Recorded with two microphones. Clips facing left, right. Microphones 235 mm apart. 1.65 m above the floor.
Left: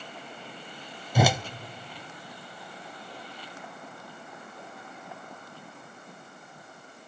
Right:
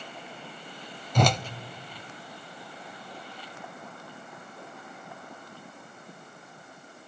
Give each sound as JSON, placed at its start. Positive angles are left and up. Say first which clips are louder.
{"t": 1.1, "sound": "a whoosh", "louder": "left 1 dB", "side_deg": 10, "distance_m": 0.6}